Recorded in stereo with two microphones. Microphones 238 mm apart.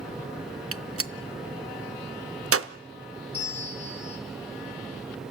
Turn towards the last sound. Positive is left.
turn(degrees=70)  # may be behind; listen again after turning